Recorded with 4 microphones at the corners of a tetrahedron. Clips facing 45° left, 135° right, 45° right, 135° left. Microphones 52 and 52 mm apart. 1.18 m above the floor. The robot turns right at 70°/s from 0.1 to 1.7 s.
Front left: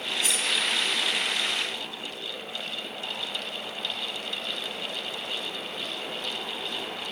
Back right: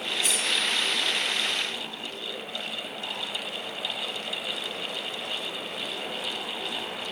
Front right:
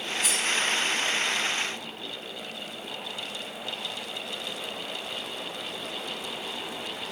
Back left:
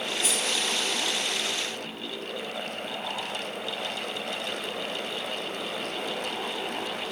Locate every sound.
0.2 s cutlery clinking: 50° left, 0.9 m; by 0.4 s 60° left, 0.9 m